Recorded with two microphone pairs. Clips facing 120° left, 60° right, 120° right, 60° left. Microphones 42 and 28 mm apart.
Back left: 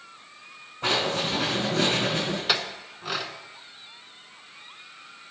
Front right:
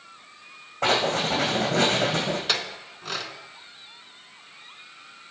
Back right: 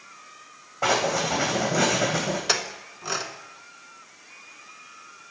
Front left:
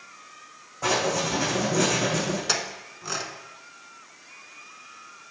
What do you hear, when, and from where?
0.8 s writing: 65° right, 2.5 m
2.5 s a clink: 160° right, 0.6 m